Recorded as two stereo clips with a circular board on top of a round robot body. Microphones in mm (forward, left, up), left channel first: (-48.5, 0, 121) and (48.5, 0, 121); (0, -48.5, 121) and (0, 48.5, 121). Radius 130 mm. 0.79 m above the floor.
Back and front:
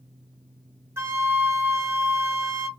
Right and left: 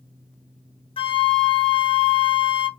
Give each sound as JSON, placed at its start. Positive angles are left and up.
{"t": 1.0, "sound": "a flute", "azimuth_deg": -65, "distance_m": 0.7}